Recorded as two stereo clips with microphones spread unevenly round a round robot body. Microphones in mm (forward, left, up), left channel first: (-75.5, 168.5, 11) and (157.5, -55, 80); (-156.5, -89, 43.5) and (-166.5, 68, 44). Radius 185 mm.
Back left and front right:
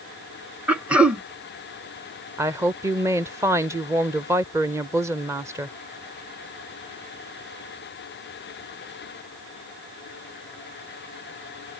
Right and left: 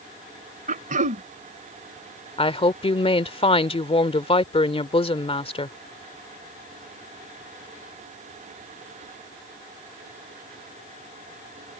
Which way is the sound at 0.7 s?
45° left.